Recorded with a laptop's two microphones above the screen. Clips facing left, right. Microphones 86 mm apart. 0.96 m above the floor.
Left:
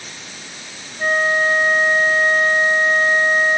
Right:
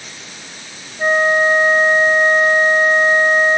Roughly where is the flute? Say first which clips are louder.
Right 4 dB; right.